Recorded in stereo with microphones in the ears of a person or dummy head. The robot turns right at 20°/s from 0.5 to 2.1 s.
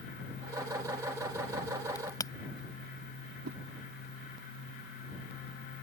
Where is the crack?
20° left (ahead or behind).